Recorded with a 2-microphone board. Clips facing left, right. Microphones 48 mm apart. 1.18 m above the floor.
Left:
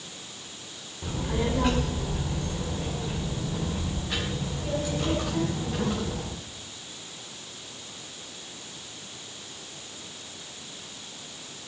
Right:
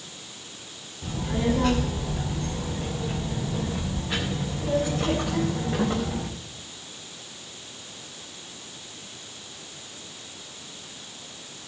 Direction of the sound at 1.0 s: 15° left (ahead or behind).